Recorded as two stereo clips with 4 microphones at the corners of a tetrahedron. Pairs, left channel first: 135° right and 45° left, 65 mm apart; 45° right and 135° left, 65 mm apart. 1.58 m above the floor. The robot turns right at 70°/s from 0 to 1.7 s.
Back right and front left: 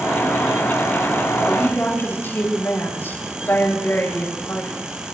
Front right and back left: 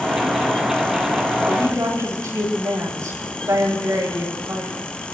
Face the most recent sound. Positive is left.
turn(degrees=165)